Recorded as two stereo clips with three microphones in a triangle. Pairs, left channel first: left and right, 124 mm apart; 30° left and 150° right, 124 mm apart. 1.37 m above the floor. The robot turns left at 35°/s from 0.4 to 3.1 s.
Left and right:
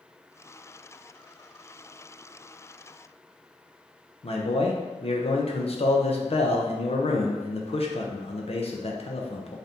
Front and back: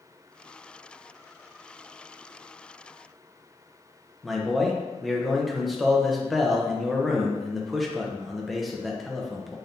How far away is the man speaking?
About 0.6 m.